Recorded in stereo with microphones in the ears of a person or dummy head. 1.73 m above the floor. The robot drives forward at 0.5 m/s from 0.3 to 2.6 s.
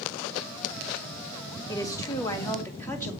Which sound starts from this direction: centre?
A woman speaking, at 1.7 s.